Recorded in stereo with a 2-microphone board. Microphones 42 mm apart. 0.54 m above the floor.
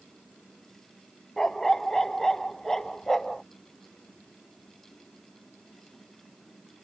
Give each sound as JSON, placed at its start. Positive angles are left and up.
{"t": 1.4, "sound": "a dog barking", "side_deg": 10}